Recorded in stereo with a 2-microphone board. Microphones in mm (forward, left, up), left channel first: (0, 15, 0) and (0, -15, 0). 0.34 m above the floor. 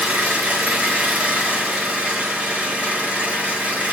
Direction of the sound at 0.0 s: 60° right (ahead or behind).